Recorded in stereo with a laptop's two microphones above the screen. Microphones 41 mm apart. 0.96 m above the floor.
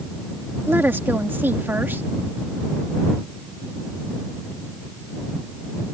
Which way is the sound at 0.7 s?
55° right (ahead or behind).